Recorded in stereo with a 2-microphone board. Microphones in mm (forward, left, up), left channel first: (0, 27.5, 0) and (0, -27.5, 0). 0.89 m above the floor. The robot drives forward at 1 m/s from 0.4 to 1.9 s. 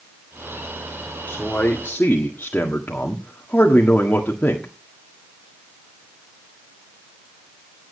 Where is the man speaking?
25° left (ahead or behind), 2 m; by 4.7 s 30° left (ahead or behind), 1.6 m.